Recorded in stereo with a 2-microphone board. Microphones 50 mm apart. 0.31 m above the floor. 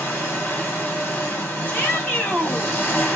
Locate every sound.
0.0 s an engine running: 45° left (ahead or behind), 2.0 m
1.7 s a shout: 35° left (ahead or behind), 1.9 m